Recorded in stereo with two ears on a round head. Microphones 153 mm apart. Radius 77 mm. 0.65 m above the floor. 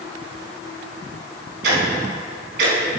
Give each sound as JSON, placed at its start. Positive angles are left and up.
{"t": 1.6, "sound": "ticking", "side_deg": -65, "distance_m": 3.0}